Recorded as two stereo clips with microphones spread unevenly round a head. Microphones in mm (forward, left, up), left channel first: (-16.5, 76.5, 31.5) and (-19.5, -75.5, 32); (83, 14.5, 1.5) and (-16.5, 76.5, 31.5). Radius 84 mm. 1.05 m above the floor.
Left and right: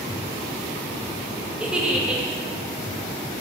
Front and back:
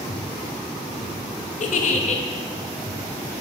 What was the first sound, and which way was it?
A giggle, 5° right.